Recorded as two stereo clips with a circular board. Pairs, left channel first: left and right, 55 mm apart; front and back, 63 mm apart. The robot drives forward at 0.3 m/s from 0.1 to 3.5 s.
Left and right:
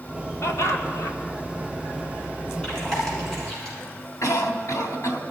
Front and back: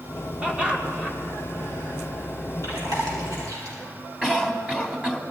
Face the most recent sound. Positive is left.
turn(degrees=110)